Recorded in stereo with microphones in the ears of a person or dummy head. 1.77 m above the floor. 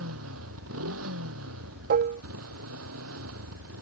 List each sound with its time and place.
0.0 s a motorcycle: 85° right
1.9 s dishes clattering: 45° right (ahead or behind)